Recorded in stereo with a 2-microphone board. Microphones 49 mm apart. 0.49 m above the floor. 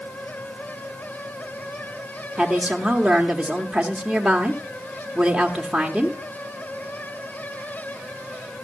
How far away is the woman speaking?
About 1.1 m.